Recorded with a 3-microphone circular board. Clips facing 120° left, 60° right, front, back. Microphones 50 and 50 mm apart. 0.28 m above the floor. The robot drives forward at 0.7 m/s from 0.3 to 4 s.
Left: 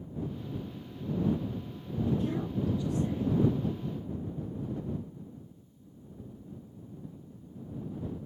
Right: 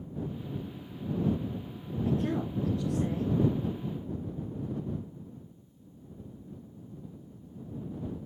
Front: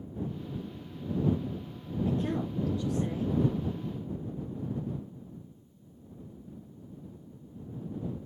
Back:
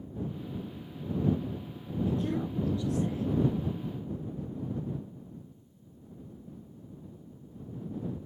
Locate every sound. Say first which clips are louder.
2.0 s a woman speaking: right 2 dB, even; 60° right, 5 m; by 3.4 s 70° right, 4.5 m